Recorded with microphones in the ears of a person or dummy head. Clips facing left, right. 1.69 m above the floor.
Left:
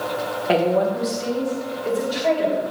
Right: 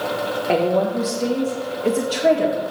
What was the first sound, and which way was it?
A woman speaking, 5° left (ahead or behind).